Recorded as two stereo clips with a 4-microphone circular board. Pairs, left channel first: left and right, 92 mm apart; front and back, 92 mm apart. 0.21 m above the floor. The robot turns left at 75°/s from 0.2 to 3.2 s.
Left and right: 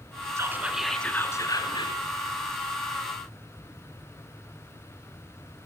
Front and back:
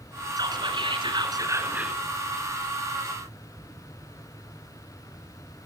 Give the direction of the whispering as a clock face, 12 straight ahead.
5 o'clock.